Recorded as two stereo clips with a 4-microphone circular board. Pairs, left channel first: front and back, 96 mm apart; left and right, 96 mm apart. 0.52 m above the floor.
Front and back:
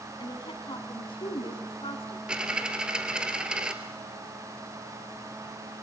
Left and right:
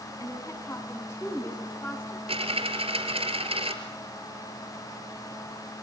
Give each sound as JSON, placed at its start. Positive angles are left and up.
{"t": 0.2, "sound": "a woman speaking", "azimuth_deg": 35, "distance_m": 4.5}
{"t": 2.3, "sound": "a dropped coin", "azimuth_deg": -100, "distance_m": 2.5}